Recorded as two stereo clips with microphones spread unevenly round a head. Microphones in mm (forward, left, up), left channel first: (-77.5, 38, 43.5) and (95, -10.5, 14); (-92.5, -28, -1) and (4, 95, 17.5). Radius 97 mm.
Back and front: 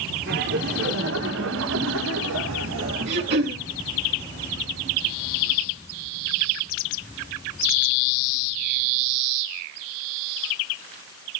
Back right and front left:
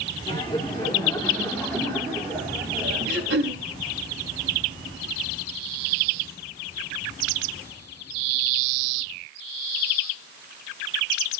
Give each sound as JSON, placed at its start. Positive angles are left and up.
{"t": 0.3, "sound": "laughter", "azimuth_deg": -55, "distance_m": 4.0}
{"t": 3.1, "sound": "throat clearing", "azimuth_deg": 20, "distance_m": 5.5}